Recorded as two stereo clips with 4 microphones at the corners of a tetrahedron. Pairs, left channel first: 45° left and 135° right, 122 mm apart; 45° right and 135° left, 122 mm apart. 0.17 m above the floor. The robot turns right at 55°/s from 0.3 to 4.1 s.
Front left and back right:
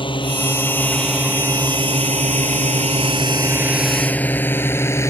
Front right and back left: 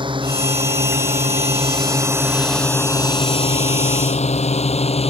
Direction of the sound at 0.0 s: 90° left.